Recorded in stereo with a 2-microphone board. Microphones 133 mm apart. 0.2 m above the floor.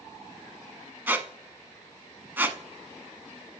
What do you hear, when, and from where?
1.1 s a squeak: 15° right (ahead or behind), 0.7 m